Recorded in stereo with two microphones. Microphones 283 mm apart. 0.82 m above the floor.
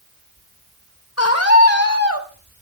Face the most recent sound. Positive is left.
turn(degrees=55)  # may be behind; listen again after turning